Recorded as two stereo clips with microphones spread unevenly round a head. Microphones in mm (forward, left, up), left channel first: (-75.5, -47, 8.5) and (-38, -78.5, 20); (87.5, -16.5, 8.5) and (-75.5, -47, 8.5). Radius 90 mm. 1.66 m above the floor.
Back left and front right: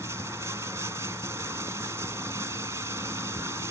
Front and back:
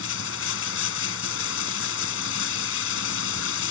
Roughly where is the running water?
Ahead left.